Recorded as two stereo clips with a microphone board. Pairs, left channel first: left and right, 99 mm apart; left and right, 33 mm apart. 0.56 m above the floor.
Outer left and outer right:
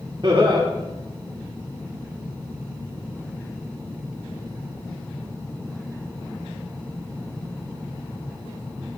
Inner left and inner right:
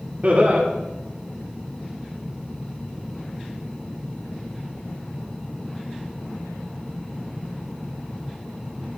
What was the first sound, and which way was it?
Laughter, 45° right (ahead or behind).